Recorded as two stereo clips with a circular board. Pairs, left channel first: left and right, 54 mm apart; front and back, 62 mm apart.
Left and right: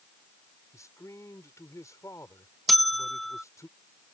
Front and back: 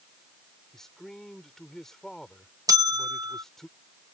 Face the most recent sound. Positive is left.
turn(degrees=180)